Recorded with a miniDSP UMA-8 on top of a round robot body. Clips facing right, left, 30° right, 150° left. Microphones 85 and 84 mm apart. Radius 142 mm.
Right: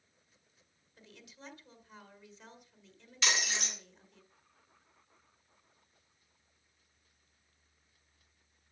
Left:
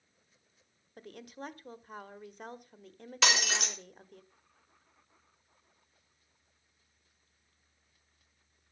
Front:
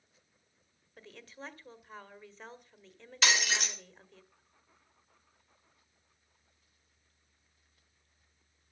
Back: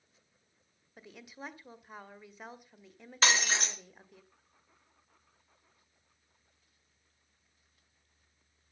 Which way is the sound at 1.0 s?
75° left.